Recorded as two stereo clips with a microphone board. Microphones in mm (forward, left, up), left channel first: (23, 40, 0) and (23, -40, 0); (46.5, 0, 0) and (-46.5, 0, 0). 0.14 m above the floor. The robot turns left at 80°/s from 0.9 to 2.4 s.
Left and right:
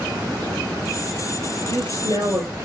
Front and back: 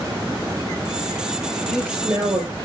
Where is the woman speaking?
80° right, 3 m; by 2.7 s 140° right, 3 m.